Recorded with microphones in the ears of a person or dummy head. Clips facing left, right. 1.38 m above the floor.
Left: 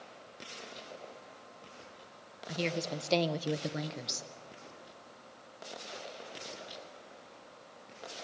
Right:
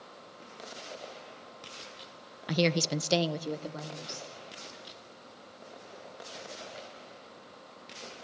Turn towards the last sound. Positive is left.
turn(degrees=25)  # may be behind; listen again after turning